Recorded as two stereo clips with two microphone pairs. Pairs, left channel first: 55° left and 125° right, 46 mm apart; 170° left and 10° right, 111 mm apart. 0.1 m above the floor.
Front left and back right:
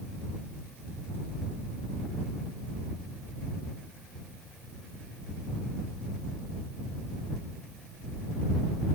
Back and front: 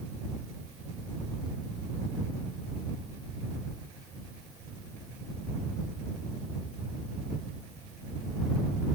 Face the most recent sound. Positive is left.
No sound to turn to.